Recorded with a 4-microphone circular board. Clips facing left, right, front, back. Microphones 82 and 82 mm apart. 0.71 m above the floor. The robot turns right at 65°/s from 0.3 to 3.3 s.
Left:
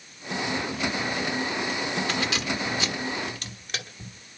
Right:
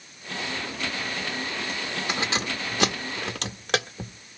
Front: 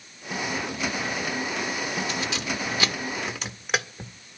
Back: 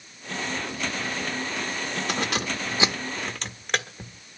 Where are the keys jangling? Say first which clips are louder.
Even, back 2 dB; 160° right, 1.3 m; by 4.1 s 80° right, 1.3 m.